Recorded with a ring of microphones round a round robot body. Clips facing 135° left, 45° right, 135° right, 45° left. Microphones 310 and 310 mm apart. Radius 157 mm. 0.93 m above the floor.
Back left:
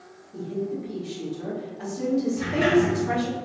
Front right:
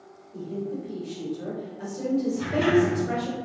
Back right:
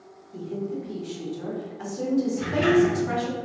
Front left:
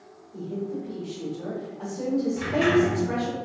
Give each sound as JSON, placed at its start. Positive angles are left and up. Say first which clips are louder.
{"t": 0.3, "sound": "a woman speaking", "louder": "back left 2 dB, back right 1 dB", "azimuth_deg": -160, "distance_m": 1.1}
{"t": 2.4, "sound": "a sliding door", "louder": "front right 1 dB, back right 2 dB", "azimuth_deg": 60, "distance_m": 2.0}